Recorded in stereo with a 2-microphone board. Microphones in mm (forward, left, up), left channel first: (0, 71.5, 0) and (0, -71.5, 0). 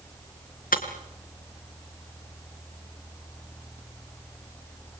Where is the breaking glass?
85° left, 2.5 m.